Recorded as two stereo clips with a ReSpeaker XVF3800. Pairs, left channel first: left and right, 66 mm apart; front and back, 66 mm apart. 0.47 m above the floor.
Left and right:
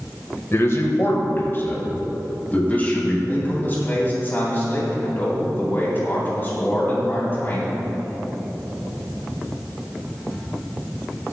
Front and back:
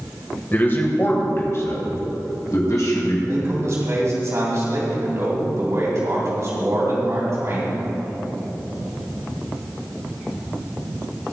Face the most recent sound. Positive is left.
turn(degrees=145)